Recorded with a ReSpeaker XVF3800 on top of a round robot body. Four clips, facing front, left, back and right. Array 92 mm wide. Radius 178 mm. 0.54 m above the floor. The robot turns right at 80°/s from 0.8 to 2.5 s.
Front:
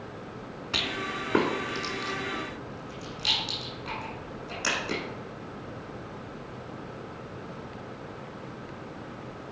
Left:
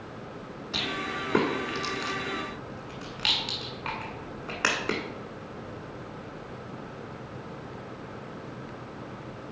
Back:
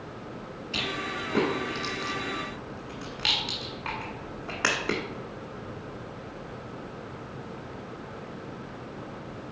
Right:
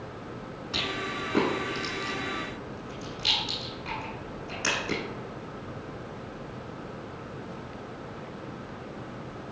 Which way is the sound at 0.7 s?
Straight ahead.